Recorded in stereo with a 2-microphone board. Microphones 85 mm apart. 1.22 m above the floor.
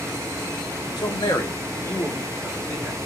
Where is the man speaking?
60° left (ahead or behind), 1.0 m; by 3.0 s 10° left (ahead or behind), 2.5 m.